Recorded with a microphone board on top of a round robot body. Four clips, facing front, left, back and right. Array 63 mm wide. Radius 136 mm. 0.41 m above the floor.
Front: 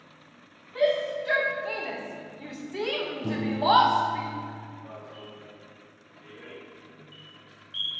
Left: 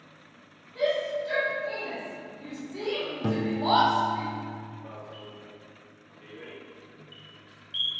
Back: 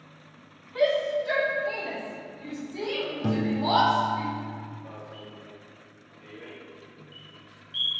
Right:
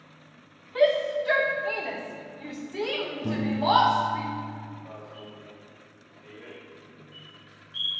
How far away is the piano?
About 0.7 m.